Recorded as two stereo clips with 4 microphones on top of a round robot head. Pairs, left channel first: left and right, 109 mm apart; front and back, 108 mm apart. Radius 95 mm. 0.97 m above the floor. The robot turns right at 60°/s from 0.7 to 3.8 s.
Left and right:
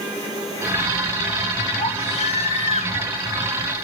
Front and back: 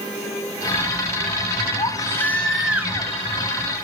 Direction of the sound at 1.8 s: 40° left.